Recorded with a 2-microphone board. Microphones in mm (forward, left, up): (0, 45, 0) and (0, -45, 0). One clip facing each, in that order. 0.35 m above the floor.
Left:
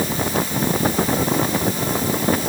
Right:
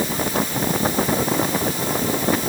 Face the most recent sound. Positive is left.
No sound to turn to.